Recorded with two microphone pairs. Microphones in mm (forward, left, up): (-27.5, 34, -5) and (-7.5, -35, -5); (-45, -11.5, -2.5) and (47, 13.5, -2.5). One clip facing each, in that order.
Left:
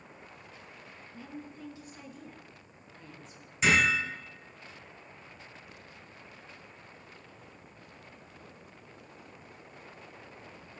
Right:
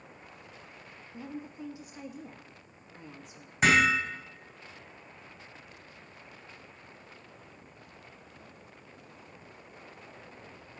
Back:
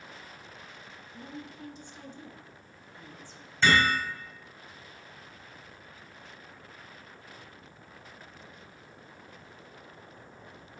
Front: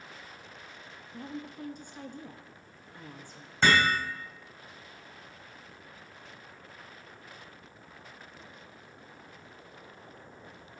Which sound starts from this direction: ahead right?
Hammering, at 3.6 s.